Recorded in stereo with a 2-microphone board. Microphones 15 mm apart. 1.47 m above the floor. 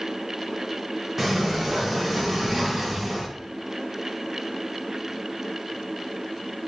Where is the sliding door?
15° right (ahead or behind), 1.9 m.